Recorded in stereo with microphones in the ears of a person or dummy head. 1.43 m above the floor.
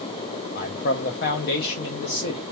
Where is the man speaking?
60° left (ahead or behind), 0.9 m.